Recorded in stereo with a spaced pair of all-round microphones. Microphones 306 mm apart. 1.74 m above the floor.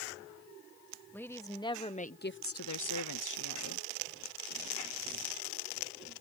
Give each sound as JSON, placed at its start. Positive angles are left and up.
{"t": 1.1, "sound": "a woman speaking", "side_deg": 5}